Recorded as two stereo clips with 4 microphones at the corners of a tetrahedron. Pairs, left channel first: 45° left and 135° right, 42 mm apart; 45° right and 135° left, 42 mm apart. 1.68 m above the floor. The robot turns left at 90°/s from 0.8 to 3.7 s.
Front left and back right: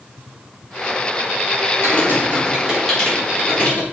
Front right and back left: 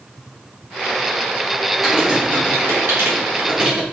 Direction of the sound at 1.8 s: 135° right.